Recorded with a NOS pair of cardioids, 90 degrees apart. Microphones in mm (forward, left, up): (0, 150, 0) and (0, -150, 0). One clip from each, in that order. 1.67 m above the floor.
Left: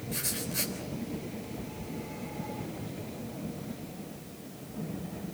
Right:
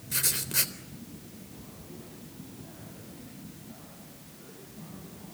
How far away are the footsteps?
I don't hear footsteps.